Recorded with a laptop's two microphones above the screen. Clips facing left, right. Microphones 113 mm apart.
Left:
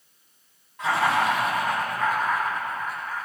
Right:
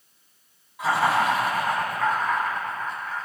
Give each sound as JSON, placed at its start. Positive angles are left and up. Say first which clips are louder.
{"t": 0.8, "sound": "laughter", "louder": "right 1 dB", "side_deg": -10, "distance_m": 4.5}